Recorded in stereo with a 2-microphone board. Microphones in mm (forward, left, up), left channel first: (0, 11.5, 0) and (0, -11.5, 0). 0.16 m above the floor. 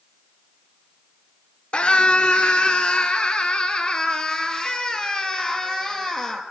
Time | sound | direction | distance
1.7 | a scream | 60° left (ahead or behind) | 2.5 m